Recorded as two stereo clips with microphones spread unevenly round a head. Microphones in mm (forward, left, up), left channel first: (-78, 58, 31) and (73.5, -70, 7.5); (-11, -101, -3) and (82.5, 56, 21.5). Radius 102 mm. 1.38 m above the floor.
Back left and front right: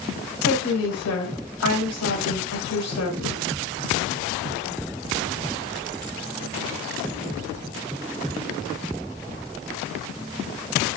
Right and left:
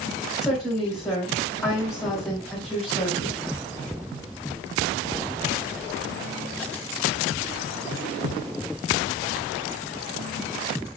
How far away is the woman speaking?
About 1.4 m.